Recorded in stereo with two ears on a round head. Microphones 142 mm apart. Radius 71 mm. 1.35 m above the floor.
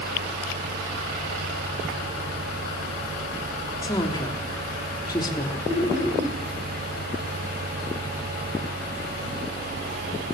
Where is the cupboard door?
No cupboard door in this recording.